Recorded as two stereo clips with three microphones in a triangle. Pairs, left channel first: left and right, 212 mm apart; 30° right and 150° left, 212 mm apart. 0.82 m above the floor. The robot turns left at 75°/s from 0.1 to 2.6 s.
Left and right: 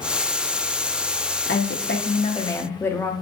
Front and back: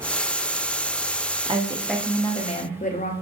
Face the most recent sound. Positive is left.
turn(degrees=10)